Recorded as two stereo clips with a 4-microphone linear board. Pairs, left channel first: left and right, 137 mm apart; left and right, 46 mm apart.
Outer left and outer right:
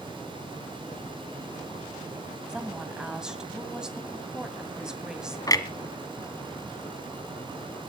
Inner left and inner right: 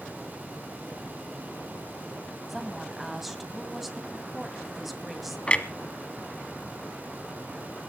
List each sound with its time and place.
2.5 s a woman speaking: 5° right (ahead or behind), 2 m
5.5 s a clunk: 25° left (ahead or behind), 1.3 m